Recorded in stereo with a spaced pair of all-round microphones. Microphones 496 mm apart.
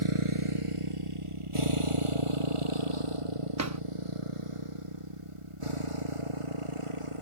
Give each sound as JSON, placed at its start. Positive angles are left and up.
{"t": 0.0, "sound": "a motorcycle", "side_deg": -80}
{"t": 3.6, "sound": "a drawer", "side_deg": -35}